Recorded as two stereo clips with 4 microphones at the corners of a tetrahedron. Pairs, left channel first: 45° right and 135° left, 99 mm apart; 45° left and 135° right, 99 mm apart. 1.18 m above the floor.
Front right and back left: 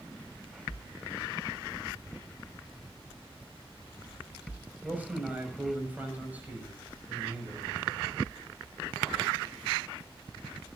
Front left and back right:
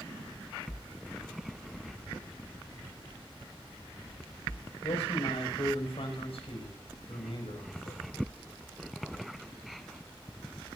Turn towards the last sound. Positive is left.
turn(degrees=60)